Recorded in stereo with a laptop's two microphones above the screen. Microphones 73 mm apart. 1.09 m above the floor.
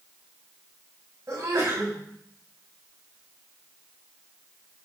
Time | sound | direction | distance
1.3 | a sneeze | 40° right (ahead or behind) | 8 m